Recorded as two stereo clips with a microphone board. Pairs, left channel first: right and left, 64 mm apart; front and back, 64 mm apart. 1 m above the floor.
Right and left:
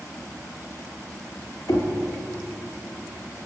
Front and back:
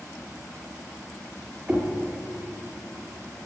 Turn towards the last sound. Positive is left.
turn(degrees=-110)